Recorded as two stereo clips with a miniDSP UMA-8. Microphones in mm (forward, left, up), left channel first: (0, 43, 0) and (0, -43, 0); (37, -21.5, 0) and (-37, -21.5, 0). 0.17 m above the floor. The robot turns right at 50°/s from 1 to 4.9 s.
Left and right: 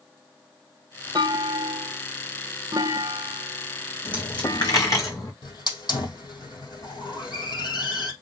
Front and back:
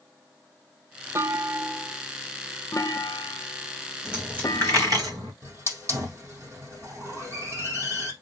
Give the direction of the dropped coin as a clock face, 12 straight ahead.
9 o'clock.